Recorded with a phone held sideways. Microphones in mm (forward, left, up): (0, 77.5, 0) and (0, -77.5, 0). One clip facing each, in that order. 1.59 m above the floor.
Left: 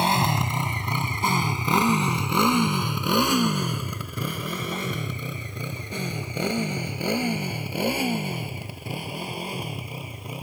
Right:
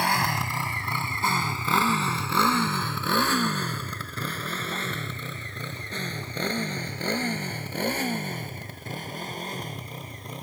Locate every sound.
0.0 s a motorcycle: 20° left (ahead or behind); by 10.4 s 10° left (ahead or behind)